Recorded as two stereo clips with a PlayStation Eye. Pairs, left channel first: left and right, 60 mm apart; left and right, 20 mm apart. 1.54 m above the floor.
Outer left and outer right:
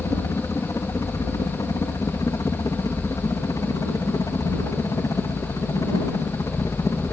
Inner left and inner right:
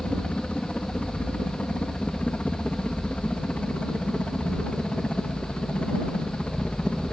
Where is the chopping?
No chopping in this recording.